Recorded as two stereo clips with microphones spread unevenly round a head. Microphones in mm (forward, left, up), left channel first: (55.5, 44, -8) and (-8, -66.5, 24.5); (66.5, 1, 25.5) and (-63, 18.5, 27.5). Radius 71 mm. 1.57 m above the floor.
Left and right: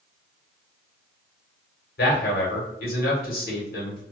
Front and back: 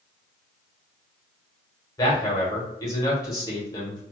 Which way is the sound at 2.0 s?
55° left.